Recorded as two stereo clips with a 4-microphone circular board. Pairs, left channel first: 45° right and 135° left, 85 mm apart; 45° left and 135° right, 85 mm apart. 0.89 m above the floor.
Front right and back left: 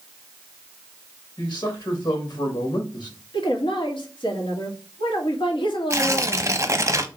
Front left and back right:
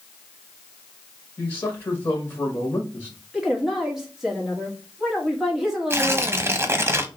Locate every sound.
1.4 s a man speaking: 15° right, 1.8 m
3.3 s a woman speaking: 50° right, 1.5 m
5.9 s tearing paper: 175° left, 0.7 m